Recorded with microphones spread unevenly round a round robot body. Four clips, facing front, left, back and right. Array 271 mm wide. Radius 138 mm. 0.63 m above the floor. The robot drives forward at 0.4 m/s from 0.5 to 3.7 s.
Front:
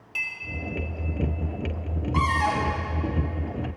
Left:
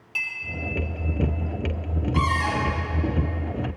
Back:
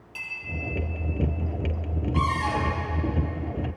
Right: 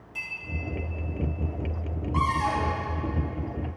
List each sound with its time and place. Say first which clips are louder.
0.1 s a clink: left 6 dB, front 5 dB; 50° left, 3 m
2.1 s a cupboard door: even, front 2 dB; straight ahead, 3.5 m